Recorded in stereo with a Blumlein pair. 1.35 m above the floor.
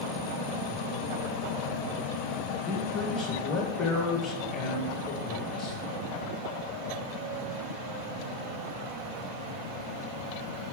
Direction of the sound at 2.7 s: 20° left.